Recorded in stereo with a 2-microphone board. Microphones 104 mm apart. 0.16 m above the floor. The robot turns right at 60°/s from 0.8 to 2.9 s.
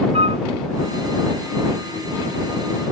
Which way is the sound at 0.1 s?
65° right (ahead or behind).